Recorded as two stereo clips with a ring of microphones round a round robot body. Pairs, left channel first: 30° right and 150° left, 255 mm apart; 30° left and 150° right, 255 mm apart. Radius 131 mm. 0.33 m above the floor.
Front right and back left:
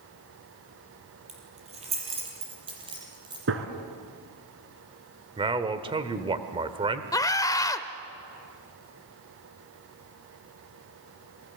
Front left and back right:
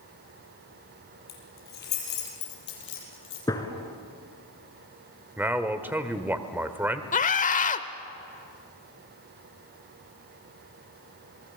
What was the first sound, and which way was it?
Keys jangling, 85° left.